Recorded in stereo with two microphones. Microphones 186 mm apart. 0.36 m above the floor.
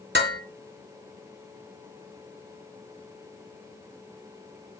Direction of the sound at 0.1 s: 65° right (ahead or behind).